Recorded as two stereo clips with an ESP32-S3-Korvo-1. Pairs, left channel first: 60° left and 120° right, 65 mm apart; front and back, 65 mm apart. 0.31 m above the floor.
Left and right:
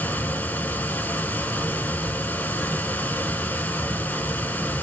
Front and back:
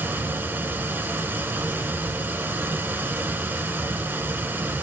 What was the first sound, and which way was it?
Running water, 125° left.